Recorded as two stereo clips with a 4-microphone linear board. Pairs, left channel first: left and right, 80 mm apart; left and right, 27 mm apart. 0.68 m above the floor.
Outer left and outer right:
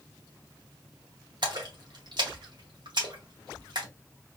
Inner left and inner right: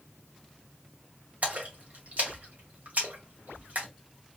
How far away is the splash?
About 1.9 m.